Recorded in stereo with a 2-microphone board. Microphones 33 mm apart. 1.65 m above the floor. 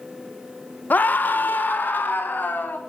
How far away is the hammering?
I don't hear hammering.